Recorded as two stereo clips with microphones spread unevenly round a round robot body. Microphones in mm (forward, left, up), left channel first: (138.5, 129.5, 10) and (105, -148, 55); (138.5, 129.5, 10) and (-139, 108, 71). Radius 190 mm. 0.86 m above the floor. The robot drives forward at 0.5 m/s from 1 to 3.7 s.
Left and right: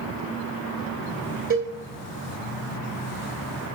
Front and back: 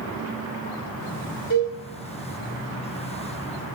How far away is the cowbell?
About 3 m.